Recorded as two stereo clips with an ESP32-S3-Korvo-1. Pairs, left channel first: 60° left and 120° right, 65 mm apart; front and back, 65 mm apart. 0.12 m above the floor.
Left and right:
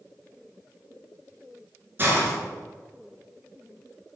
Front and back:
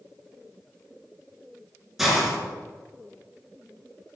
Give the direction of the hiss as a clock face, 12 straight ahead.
3 o'clock.